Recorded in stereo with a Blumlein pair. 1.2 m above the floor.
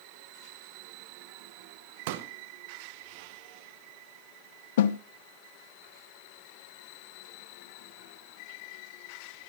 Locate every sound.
2.1 s a pop: 50° right, 1.3 m
4.8 s a snare drum: 55° left, 0.5 m